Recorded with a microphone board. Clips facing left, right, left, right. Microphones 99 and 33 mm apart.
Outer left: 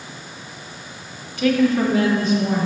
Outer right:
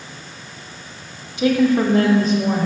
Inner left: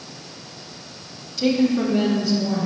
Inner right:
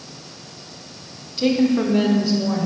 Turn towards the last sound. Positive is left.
turn(degrees=-45)  # may be behind; listen again after turning